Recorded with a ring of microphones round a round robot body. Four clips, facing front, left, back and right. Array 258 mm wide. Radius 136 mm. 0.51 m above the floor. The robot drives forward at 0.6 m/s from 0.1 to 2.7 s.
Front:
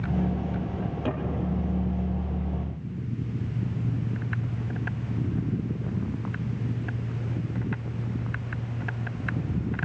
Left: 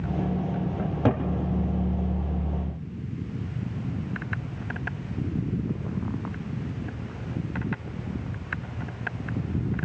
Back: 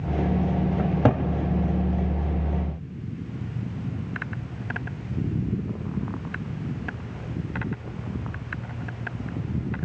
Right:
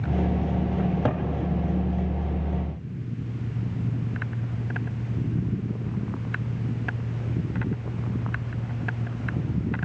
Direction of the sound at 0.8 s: Straight behind.